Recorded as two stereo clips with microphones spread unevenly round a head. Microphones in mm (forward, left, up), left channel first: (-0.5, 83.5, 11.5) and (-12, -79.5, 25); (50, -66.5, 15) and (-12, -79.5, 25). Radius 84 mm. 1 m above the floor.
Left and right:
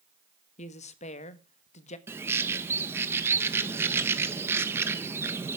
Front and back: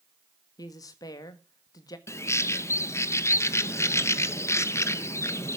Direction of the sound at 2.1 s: 15° right.